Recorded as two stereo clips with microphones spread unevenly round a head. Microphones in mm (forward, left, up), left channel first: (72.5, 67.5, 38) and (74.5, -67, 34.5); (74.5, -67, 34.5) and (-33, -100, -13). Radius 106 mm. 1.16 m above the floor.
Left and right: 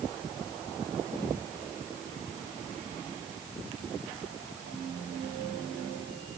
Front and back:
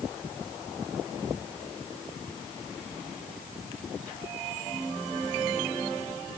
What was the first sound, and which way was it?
Only background noise.